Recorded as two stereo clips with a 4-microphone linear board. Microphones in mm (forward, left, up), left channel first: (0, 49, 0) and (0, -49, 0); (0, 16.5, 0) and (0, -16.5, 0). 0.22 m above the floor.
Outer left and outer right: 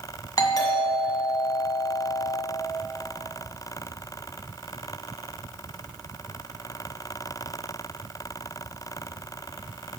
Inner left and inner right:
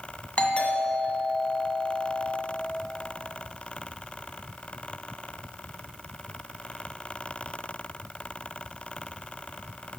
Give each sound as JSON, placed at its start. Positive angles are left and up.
{"t": 0.4, "sound": "a doorbell", "side_deg": 40, "distance_m": 1.9}